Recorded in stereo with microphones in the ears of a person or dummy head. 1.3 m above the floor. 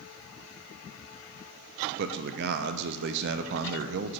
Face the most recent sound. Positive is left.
turn(degrees=-60)  # may be behind; listen again after turning